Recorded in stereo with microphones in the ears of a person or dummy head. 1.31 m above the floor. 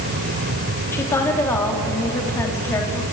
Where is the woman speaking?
10° left (ahead or behind), 3 m.